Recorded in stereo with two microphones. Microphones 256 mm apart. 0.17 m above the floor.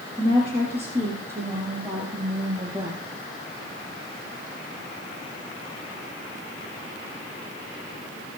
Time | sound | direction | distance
0.2 | a woman speaking | 25° right (ahead or behind) | 4 m